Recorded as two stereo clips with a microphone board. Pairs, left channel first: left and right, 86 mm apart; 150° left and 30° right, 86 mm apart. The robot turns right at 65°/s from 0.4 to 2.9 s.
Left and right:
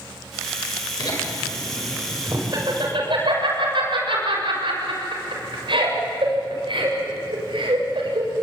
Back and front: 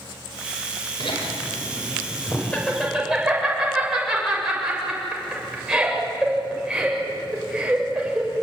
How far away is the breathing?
No breathing in this recording.